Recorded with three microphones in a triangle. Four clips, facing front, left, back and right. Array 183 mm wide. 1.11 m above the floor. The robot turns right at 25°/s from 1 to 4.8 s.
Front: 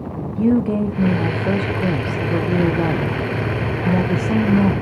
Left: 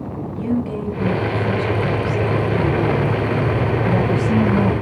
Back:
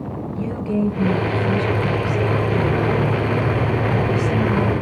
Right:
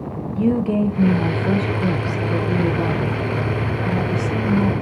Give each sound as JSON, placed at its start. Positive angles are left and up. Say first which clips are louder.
{"t": 0.3, "sound": "a woman speaking", "louder": "right 4 dB, front 6 dB", "azimuth_deg": -40, "distance_m": 1.1}